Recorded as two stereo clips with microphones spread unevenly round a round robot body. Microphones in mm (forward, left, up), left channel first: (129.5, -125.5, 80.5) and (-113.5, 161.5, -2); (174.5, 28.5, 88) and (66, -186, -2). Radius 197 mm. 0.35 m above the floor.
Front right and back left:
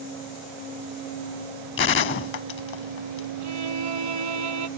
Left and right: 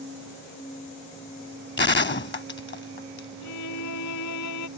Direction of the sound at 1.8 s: 15° left.